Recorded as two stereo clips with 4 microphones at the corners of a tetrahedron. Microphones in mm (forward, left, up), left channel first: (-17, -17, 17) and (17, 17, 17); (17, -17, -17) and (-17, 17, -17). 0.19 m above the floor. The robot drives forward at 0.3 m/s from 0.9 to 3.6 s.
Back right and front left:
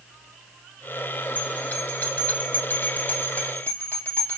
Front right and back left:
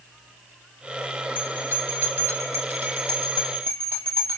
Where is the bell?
175° left, 1.0 m.